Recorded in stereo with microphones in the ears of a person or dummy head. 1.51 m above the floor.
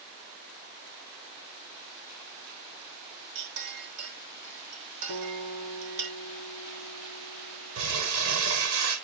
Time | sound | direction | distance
3.4 | a clink | 70° right (ahead or behind) | 3 m
5.1 | a guitar | 45° right (ahead or behind) | 3 m
7.8 | crumpling | 75° right (ahead or behind) | 7.5 m